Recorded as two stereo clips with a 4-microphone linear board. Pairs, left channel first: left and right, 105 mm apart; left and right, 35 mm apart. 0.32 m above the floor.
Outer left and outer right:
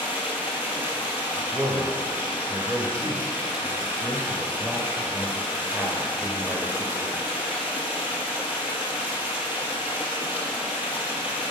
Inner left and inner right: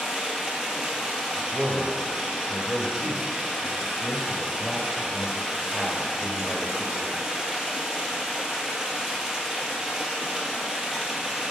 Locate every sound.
0.0 s running water: 15° right (ahead or behind), 1.5 m
1.4 s a man speaking: 20° right (ahead or behind), 0.8 m